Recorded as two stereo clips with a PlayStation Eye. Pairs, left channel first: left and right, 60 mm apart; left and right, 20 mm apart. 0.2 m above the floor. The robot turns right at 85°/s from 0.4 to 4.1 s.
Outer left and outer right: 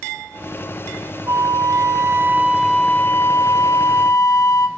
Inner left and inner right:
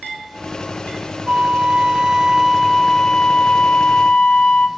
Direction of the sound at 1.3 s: 125° right.